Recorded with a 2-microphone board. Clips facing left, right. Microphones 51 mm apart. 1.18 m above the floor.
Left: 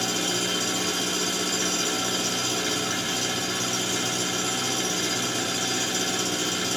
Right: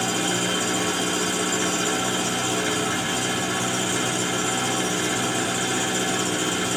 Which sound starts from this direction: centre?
An engine running, at 0.0 s.